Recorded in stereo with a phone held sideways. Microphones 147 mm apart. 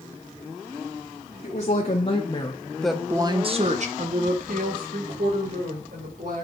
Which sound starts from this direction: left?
A woman speaking, at 1.4 s.